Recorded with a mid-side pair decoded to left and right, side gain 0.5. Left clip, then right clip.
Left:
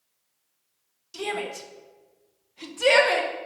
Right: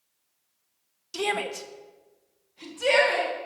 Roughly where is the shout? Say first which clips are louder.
Right 3 dB; ahead right.